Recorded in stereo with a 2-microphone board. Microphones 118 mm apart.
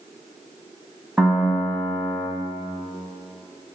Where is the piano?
5° right (ahead or behind), 3 m.